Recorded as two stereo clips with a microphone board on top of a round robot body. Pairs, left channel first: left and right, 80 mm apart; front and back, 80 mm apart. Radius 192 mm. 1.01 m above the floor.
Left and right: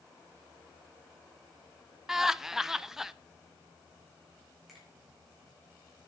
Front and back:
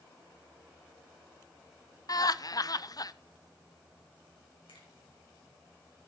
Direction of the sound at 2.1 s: 10° right.